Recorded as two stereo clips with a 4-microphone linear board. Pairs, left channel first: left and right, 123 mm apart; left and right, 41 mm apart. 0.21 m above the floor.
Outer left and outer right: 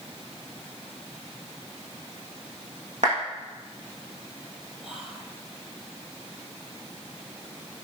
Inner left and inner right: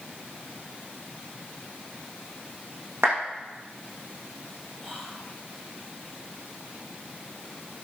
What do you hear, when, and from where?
3.0 s a clap: 75° right (ahead or behind), 8 m
4.8 s whispering: 10° right (ahead or behind), 7 m